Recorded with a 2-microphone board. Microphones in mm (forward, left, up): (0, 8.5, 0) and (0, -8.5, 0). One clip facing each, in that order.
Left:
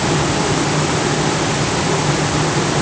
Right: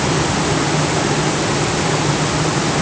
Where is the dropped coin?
I don't hear a dropped coin.